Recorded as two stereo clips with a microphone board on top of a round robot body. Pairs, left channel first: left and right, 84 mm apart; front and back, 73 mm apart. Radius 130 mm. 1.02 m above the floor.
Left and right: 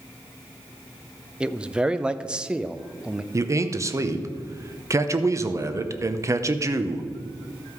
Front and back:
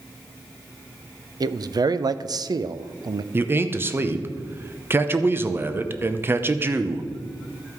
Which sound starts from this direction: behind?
A man speaking, at 1.4 s.